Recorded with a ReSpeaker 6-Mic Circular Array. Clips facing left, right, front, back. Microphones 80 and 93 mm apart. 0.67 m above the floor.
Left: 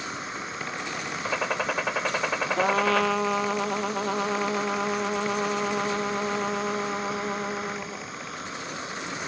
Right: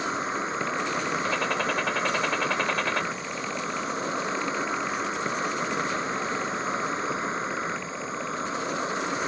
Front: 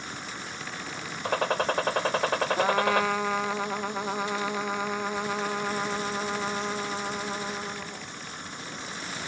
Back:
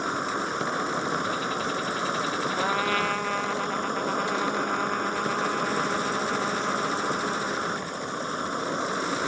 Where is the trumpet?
80° left.